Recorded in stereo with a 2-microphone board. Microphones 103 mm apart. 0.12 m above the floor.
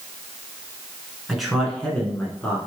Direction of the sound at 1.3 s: 5° right (ahead or behind).